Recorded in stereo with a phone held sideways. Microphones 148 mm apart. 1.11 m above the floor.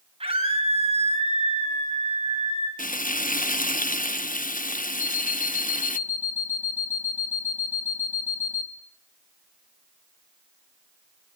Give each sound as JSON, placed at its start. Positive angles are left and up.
{"t": 0.2, "sound": "a scream", "side_deg": -35, "distance_m": 7.0}
{"t": 2.8, "sound": "frying", "side_deg": 60, "distance_m": 0.7}
{"t": 5.0, "sound": "an alarm clock", "side_deg": -15, "distance_m": 3.0}